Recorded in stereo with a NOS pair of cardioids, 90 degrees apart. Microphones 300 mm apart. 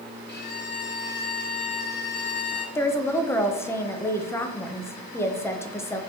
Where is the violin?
30° left, 1.8 m.